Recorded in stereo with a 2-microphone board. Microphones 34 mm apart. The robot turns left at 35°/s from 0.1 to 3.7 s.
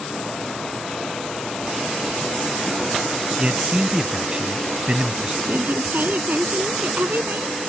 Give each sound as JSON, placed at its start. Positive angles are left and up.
{"t": 3.4, "sound": "a man speaking", "side_deg": -40}
{"t": 5.5, "sound": "a woman speaking", "side_deg": -60}